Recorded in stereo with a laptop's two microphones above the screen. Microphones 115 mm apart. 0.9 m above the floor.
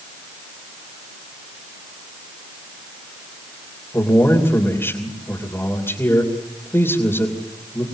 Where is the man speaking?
20° left (ahead or behind), 2.5 m.